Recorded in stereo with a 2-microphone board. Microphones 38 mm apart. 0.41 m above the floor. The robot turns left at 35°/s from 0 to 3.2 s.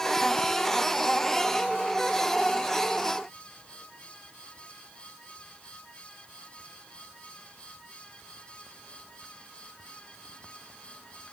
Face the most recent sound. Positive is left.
No sound to turn to.